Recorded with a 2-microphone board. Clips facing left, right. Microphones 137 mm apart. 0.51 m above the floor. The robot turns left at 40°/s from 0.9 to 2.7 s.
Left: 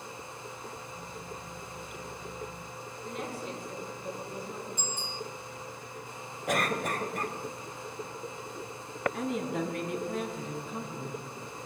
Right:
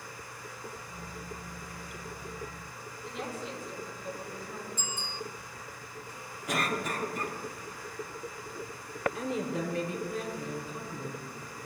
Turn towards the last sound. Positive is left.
turn(degrees=60)  # may be behind; listen again after turning